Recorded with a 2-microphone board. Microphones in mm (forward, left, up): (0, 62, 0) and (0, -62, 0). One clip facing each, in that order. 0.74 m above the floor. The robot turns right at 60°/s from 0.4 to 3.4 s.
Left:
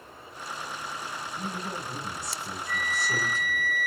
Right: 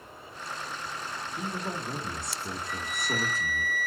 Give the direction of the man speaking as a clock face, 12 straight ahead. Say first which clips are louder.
Right 2 dB; 5 o'clock.